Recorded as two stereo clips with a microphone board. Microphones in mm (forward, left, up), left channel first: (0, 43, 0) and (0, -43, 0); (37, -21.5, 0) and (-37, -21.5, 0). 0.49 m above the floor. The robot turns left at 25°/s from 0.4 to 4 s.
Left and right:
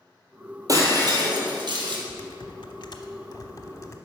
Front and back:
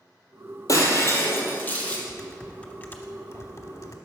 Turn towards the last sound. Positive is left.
turn(degrees=35)